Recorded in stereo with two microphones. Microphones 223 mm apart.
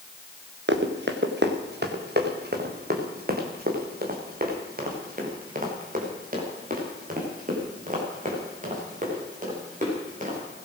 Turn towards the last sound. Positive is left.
turn(degrees=-40)  # may be behind; listen again after turning